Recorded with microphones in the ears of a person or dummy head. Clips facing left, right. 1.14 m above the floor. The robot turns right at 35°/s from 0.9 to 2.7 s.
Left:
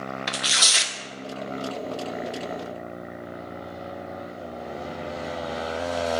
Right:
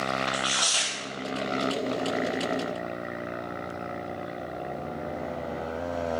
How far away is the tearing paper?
About 0.6 m.